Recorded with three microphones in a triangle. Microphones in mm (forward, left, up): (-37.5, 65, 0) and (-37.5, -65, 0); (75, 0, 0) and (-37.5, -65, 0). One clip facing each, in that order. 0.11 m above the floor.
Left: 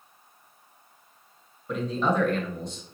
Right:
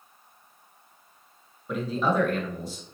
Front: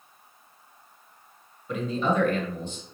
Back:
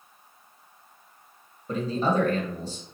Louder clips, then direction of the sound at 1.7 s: Even, back 1 dB; 175° right.